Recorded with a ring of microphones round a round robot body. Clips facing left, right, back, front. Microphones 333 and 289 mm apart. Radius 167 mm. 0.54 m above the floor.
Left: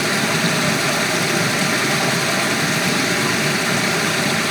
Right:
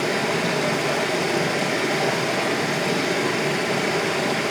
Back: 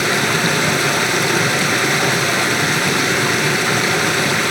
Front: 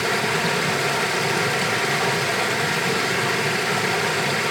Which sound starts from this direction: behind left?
Running water, at 0.0 s.